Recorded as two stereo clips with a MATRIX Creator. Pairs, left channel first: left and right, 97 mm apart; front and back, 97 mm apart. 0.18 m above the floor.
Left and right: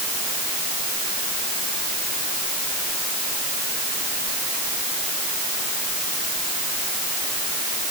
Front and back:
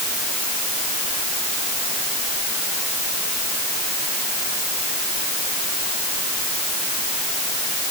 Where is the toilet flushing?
No toilet flushing in this recording.